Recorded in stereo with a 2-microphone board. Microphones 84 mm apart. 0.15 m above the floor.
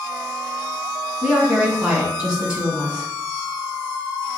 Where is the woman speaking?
10° right (ahead or behind), 1.2 m.